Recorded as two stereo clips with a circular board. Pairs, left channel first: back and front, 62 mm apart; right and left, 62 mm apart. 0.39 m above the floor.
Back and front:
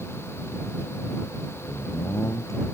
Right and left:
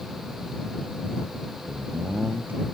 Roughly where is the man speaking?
Behind left.